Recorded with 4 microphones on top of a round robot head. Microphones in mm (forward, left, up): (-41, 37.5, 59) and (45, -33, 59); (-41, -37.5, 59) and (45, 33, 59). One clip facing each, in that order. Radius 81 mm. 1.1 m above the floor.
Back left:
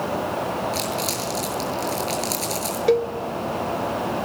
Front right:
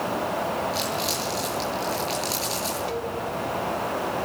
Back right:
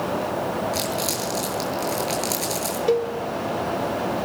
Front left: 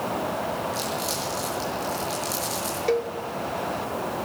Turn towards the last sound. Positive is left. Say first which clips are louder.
# back left 11 dB, back right 3 dB
turn(degrees=145)